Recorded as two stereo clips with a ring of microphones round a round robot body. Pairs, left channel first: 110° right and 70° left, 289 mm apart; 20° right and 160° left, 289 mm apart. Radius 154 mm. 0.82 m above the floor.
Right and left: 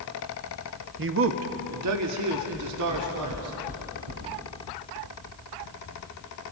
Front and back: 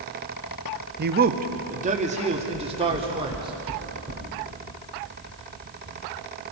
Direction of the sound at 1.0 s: 110° left.